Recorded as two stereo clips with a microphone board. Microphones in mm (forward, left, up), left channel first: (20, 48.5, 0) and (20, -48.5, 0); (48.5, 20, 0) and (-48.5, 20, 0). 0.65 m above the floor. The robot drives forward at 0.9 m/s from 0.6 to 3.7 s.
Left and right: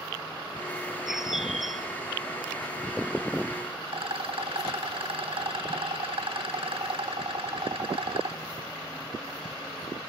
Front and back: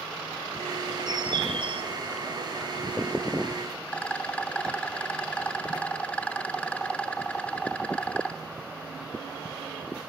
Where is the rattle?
75° right, 0.9 m.